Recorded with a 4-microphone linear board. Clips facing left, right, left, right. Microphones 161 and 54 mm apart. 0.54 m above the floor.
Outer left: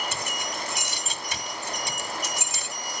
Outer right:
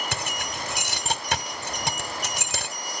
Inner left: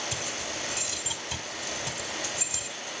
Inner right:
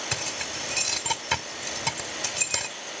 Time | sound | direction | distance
0.1 | keys jangling | 70° right (ahead or behind) | 1.9 m